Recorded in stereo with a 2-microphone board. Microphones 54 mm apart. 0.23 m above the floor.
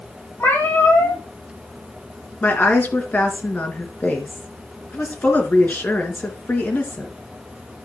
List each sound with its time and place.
0.4 s a cat meowing: 50° left (ahead or behind), 4.5 m
2.4 s a woman speaking: 35° left (ahead or behind), 3.5 m